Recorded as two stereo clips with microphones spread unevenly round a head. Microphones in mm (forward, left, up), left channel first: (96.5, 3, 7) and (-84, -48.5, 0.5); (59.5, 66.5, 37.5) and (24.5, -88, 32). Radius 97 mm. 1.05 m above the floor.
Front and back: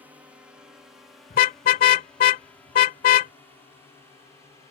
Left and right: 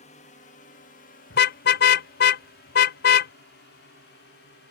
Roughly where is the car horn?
Ahead left.